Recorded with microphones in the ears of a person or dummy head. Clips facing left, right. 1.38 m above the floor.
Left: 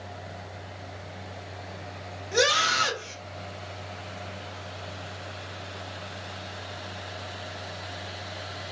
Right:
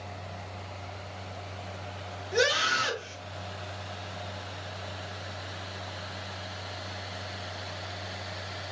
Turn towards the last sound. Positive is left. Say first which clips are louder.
# left 2 dB
turn(degrees=70)  # may be behind; listen again after turning